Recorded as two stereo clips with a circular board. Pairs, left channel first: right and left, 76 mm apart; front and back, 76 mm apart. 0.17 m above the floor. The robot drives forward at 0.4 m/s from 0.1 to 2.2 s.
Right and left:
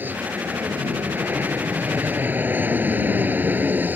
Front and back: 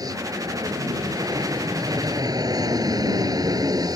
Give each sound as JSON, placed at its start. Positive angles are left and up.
{"t": 0.0, "sound": "an aircraft", "azimuth_deg": 155}